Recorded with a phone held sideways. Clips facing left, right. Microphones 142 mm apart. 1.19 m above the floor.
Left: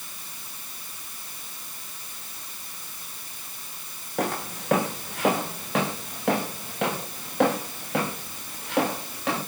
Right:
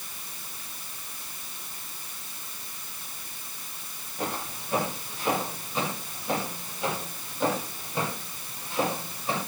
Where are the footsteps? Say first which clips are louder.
Left 5 dB; 75° left (ahead or behind), 4.5 m.